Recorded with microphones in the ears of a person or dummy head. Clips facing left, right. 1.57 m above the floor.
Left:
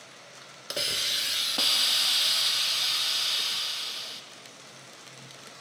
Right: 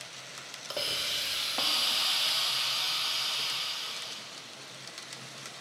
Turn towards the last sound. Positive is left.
turn(degrees=25)  # may be behind; listen again after turning